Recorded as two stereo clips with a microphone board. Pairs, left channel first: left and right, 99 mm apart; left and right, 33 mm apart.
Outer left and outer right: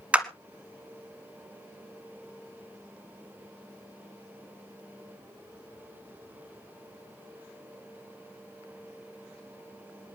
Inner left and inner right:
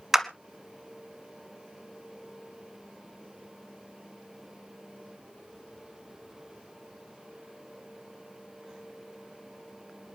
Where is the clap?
15° right (ahead or behind), 1.2 m.